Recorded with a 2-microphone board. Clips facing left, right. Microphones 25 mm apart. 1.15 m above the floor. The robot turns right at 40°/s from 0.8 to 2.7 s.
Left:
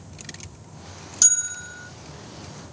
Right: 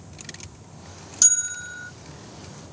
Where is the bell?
5° left (ahead or behind); by 1.9 s 20° right (ahead or behind).